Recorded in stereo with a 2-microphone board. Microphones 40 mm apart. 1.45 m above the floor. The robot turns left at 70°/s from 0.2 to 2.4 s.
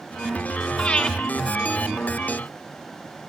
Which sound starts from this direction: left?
Breathing, at 0.8 s.